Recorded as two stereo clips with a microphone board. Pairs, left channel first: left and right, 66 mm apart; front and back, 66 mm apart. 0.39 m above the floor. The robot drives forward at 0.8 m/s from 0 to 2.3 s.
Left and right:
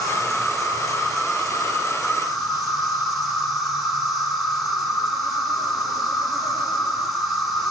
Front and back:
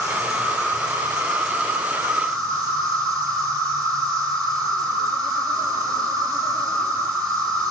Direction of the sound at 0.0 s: 175° left.